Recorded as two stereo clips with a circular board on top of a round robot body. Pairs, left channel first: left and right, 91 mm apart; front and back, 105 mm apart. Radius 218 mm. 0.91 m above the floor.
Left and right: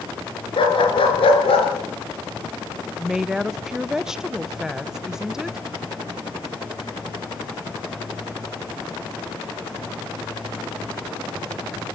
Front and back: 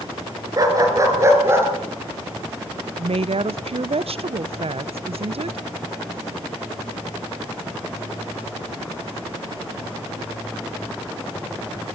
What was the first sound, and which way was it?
A dog barking, 125° left.